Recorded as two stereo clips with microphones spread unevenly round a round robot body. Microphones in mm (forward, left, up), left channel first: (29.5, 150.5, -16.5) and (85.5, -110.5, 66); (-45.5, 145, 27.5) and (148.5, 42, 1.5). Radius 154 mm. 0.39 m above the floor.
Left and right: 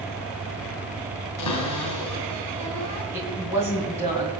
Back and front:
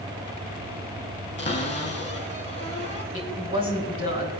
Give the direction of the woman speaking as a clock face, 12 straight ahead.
6 o'clock.